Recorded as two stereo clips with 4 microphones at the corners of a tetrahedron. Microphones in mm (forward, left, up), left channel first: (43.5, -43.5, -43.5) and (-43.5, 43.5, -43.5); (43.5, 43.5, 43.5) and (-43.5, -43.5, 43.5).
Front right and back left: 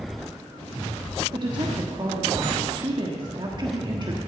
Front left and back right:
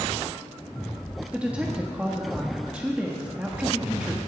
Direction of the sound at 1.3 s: 150° left.